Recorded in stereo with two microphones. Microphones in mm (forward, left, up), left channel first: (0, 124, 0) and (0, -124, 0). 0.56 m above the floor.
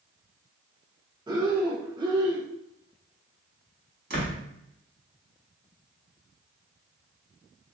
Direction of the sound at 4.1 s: 40° right (ahead or behind).